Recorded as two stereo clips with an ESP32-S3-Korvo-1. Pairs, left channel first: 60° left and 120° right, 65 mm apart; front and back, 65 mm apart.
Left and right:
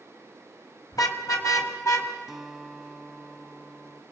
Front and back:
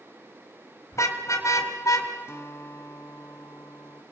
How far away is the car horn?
About 2.5 m.